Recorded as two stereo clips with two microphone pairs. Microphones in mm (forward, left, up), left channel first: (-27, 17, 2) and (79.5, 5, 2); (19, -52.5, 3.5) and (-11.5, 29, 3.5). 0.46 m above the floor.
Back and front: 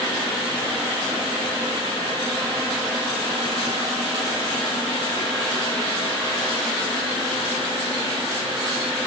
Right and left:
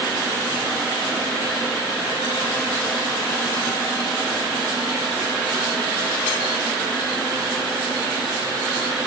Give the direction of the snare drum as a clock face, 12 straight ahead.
No snare drum in this recording.